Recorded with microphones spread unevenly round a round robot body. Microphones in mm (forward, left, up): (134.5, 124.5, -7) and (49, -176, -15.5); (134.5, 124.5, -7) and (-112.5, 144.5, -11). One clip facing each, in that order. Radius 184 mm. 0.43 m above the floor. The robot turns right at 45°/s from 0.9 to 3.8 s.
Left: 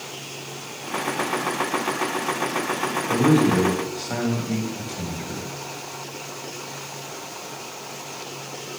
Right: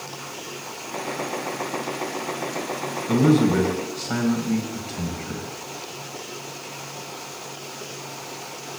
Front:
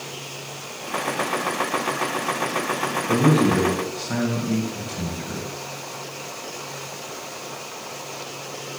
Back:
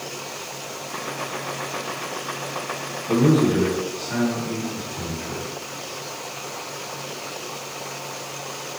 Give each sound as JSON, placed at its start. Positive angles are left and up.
{"t": 3.1, "sound": "a man speaking", "azimuth_deg": -75, "distance_m": 3.0}